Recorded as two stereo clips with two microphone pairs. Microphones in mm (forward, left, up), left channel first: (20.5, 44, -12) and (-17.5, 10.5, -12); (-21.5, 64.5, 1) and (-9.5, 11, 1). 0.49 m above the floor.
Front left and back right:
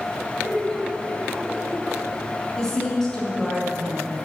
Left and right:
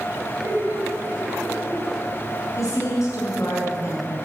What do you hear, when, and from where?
0.4 s laughter: 30° right, 4 m
2.6 s a woman speaking: 120° left, 5.5 m